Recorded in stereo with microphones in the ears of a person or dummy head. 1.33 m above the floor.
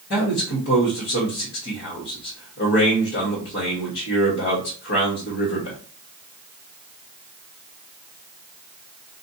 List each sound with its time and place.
0.1 s a man speaking: 60° left (ahead or behind), 1.3 m